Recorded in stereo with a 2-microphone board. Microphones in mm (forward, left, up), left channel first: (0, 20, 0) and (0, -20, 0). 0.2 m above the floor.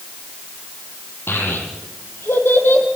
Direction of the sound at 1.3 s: 80° left.